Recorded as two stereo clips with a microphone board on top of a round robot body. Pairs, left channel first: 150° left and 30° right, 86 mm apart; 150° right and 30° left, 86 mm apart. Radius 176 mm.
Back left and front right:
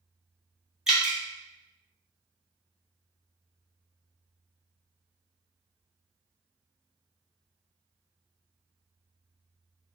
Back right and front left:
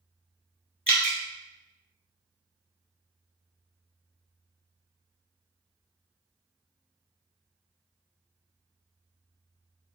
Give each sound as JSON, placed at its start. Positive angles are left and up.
{"t": 0.9, "sound": "dripping", "azimuth_deg": -105, "distance_m": 1.1}